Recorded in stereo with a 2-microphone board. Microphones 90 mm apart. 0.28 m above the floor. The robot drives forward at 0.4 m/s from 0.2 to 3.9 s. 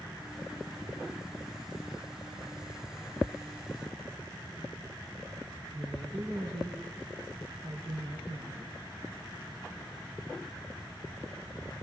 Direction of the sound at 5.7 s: 65° right (ahead or behind).